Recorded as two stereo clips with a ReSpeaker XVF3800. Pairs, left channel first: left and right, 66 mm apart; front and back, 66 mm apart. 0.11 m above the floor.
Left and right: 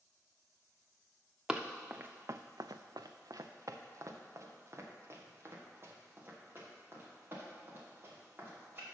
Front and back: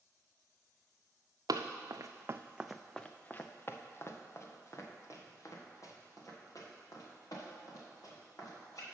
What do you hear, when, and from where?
1.5 s running footsteps: 165° right, 0.7 m; by 8.9 s 30° right, 4 m